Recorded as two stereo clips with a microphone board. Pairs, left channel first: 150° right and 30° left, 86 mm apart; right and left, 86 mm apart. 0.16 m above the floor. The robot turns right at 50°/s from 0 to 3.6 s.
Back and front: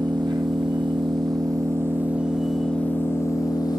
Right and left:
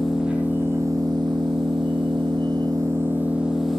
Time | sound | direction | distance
0.0 | an engine running | 5° right | 5.5 m